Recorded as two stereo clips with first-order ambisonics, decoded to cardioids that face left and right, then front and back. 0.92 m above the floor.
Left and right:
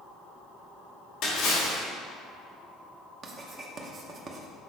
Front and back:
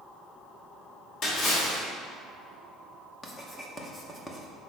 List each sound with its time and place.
1.2 s a splash: 45° left, 2.5 m
3.2 s writing: 65° right, 0.8 m